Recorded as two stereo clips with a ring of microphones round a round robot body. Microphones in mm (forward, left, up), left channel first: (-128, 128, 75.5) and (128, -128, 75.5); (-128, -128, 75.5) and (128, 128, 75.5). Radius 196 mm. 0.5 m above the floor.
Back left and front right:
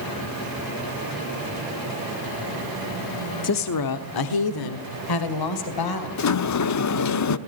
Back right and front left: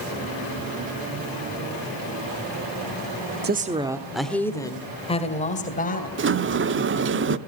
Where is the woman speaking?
100° left, 1.1 m; by 6.1 s 160° left, 3 m.